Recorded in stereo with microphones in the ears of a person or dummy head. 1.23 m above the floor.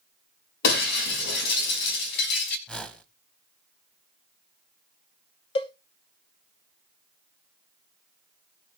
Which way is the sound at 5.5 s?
30° left (ahead or behind).